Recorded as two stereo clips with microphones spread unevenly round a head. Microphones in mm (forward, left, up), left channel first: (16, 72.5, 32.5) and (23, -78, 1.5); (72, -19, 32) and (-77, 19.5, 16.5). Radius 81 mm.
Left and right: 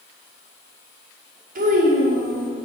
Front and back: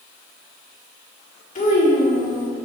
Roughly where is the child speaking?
Ahead right.